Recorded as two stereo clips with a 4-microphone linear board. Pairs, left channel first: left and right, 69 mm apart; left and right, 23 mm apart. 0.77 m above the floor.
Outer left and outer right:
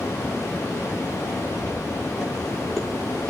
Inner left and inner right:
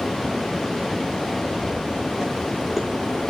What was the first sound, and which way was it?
Footsteps, centre (ahead or behind).